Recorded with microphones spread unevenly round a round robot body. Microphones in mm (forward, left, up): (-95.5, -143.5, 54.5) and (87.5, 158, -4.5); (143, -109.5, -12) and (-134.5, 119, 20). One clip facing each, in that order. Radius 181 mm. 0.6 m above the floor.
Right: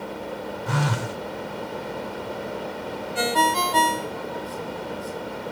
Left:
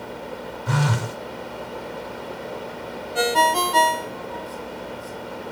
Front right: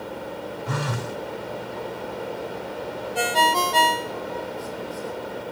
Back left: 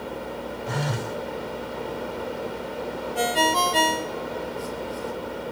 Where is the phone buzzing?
40° left, 0.6 m.